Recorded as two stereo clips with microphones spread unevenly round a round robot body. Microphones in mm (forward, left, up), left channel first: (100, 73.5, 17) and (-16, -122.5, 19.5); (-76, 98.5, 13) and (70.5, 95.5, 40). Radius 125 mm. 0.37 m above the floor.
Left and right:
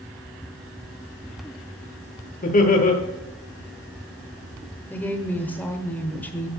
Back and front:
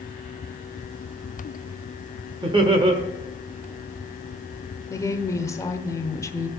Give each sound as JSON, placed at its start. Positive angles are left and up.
{"t": 2.4, "sound": "laughter", "azimuth_deg": 50, "distance_m": 1.2}
{"t": 4.9, "sound": "a woman speaking", "azimuth_deg": 140, "distance_m": 1.0}